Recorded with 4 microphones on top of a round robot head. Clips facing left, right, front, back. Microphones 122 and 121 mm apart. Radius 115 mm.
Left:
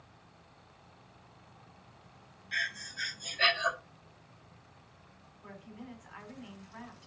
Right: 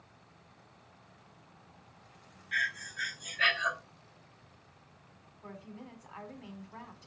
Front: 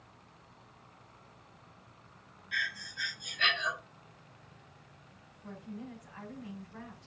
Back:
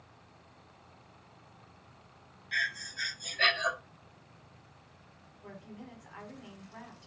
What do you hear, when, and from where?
2.5 s breathing: 145° left, 1.1 m
5.4 s a woman speaking: 150° right, 4 m